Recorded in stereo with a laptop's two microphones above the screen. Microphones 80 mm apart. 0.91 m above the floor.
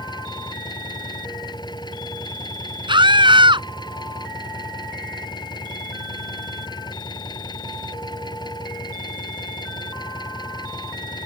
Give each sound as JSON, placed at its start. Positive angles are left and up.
{"t": 0.0, "sound": "an engine running", "side_deg": 60}
{"t": 2.9, "sound": "a scream", "side_deg": -80}